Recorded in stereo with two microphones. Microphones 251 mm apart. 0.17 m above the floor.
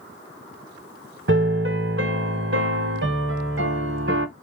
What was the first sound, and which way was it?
A piano, 50° right (ahead or behind).